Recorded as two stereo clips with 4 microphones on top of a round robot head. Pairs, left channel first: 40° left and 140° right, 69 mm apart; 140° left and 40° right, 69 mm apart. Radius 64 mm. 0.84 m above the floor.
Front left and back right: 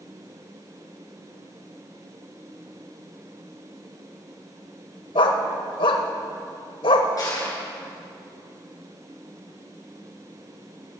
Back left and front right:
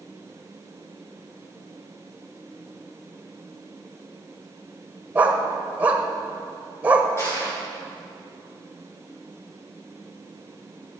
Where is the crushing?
85° left, 6.5 m.